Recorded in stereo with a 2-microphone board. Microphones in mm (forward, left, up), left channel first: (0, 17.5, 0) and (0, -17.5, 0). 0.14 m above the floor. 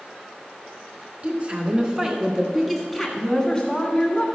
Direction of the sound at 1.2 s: 35° right (ahead or behind).